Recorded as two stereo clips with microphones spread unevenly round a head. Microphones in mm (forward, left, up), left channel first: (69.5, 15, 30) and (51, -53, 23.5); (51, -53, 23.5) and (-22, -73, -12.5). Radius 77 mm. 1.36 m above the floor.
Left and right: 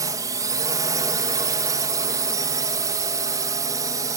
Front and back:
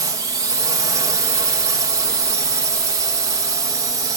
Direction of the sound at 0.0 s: 150° right.